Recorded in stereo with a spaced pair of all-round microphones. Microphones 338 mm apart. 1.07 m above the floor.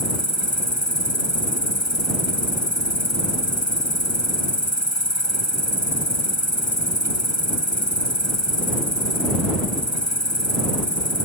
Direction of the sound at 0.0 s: 55° left (ahead or behind).